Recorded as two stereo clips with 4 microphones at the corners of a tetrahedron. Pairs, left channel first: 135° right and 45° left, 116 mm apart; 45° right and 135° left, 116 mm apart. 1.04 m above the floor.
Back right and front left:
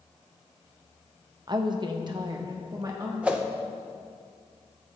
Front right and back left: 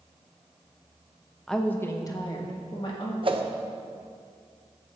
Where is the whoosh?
120° left, 0.7 m.